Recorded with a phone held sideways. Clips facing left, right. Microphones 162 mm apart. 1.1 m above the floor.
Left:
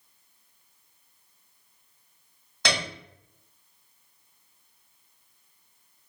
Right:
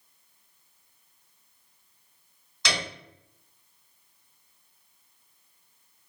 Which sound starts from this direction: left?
A piano, at 2.6 s.